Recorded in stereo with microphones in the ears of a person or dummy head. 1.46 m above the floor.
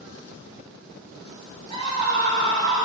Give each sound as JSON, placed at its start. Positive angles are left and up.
{"t": 1.7, "sound": "a scream", "side_deg": 30, "distance_m": 5.0}